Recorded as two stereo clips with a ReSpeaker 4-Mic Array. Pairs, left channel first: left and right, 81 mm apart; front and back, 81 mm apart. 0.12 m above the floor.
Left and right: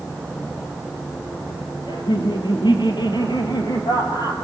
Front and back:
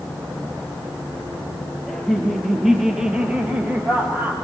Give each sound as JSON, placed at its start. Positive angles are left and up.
{"t": 1.9, "sound": "laughter", "azimuth_deg": 85, "distance_m": 3.5}